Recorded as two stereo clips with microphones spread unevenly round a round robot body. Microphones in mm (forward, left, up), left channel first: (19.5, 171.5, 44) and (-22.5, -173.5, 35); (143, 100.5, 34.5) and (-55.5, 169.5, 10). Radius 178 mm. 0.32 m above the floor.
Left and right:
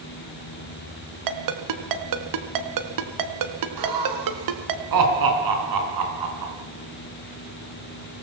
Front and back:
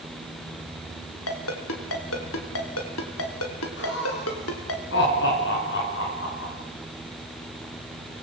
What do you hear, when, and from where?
1.3 s a ringtone: 65° right, 1.9 m
3.8 s laughter: 70° right, 4 m